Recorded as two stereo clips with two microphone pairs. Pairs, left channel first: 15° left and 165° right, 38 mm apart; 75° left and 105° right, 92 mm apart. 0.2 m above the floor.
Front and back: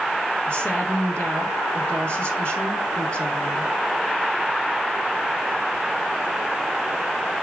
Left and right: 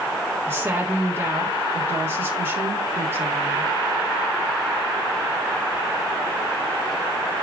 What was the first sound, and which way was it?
A woman speaking, 40° right.